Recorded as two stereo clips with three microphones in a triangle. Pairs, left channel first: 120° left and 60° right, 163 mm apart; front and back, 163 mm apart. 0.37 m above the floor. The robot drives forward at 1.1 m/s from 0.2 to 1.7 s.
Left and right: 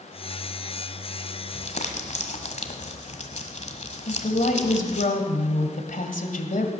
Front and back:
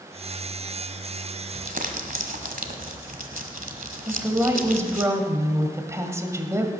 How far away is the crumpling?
About 1.3 m.